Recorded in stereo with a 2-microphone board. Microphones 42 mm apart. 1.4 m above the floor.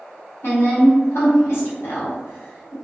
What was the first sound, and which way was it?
A woman speaking, 75° left (ahead or behind).